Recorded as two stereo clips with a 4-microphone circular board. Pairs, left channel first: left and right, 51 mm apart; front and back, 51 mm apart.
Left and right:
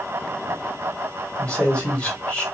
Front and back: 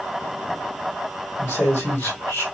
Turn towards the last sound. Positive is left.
turn(degrees=20)